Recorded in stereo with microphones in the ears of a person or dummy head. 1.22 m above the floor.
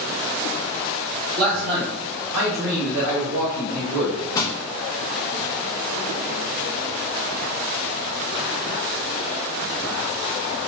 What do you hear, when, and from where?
1.4 s a man speaking: 45° right (ahead or behind), 0.6 m; by 4.2 s 85° right, 2.5 m
4.3 s crushing: 25° left (ahead or behind), 0.6 m